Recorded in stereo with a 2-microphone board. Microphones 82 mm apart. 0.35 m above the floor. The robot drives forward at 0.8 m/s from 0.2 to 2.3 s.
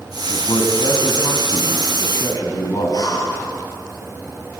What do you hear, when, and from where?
0.3 s a man speaking: 65° left (ahead or behind), 2 m; by 3.2 s 50° left (ahead or behind), 2.5 m
2.9 s breathing: 50° left (ahead or behind), 3.5 m